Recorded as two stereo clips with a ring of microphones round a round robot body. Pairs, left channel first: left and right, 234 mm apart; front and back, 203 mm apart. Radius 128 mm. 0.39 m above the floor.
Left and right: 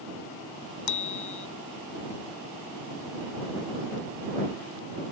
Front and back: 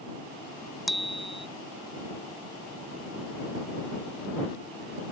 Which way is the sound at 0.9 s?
90° left.